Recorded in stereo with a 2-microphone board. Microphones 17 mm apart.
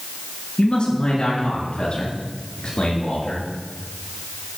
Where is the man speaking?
60° left (ahead or behind), 5 m; by 3.5 s 65° left (ahead or behind), 6.5 m.